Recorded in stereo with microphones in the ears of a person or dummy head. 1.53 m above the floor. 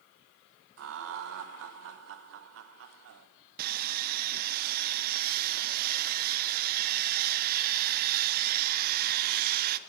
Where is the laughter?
65° right (ahead or behind), 0.9 m.